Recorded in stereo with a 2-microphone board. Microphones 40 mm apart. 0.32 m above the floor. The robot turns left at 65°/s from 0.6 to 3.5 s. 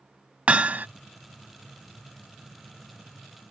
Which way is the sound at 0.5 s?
35° right (ahead or behind).